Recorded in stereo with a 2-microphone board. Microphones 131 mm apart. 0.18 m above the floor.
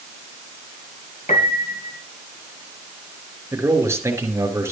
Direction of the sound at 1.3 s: 70° left (ahead or behind).